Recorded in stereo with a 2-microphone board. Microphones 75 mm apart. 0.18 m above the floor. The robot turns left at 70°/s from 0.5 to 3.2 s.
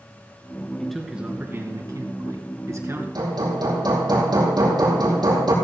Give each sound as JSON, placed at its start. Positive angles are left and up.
{"t": 0.8, "sound": "a man speaking", "azimuth_deg": 10, "distance_m": 2.5}
{"t": 3.1, "sound": "hammering", "side_deg": -65, "distance_m": 4.5}